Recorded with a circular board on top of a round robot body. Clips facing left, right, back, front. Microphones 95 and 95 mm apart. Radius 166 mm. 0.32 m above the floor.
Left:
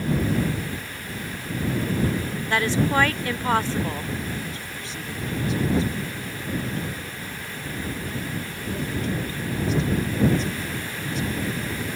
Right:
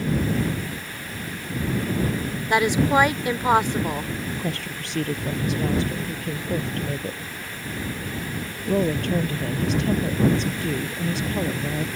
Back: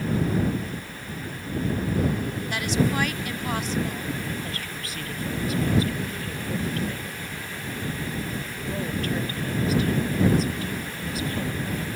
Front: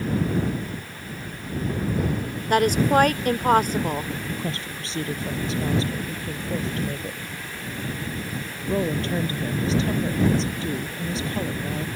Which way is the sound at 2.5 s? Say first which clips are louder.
Right 3 dB, front 7 dB; 20° right.